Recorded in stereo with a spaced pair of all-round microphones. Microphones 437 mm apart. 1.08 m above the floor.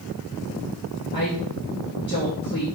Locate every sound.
1.1 s a woman speaking: 25° left (ahead or behind), 1.8 m